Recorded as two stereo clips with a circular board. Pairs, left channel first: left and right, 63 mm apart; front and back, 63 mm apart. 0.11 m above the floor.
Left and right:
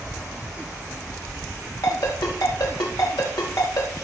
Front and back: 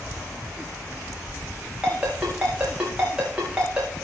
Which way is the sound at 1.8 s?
105° left.